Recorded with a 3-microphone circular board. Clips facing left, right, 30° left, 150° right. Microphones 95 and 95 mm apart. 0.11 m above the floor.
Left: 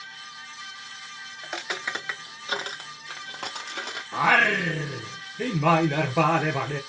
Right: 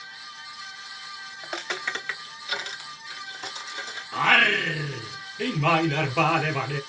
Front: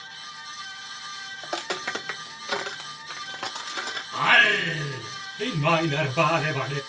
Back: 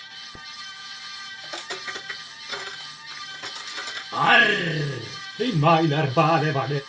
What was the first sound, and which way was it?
Footsteps, 5° right.